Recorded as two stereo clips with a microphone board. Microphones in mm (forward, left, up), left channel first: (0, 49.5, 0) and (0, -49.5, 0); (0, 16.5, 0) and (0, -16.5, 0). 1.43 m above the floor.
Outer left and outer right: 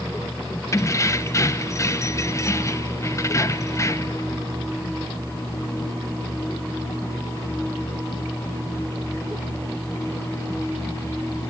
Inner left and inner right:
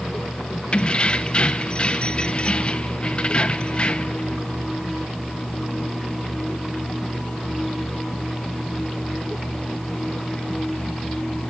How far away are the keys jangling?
About 0.6 m.